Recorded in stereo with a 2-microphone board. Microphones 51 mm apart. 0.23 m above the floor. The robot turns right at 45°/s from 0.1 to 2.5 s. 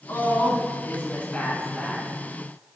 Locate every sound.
0.1 s a woman speaking: 100° left, 2.5 m; by 2.1 s 170° right, 2.5 m